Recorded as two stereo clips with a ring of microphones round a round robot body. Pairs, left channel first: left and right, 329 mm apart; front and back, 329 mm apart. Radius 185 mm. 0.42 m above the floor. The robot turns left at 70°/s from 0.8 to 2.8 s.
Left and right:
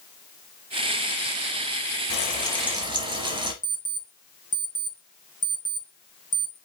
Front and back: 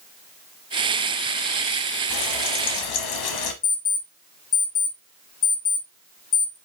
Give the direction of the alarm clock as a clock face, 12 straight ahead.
11 o'clock.